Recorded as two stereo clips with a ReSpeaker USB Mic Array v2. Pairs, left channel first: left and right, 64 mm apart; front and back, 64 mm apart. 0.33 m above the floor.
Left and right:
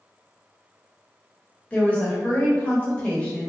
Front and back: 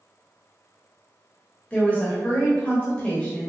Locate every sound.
1.7 s a woman speaking: 40° left, 1.1 m